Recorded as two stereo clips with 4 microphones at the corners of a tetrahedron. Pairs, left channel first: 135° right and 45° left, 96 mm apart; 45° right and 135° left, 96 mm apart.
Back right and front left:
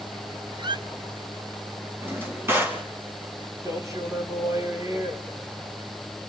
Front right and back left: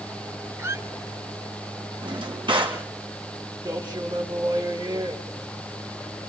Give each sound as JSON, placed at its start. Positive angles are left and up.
{"t": 0.6, "sound": "a squeak", "azimuth_deg": 75, "distance_m": 0.8}
{"t": 2.0, "sound": "a drawer", "azimuth_deg": 110, "distance_m": 3.0}
{"t": 3.6, "sound": "a man speaking", "azimuth_deg": 100, "distance_m": 4.5}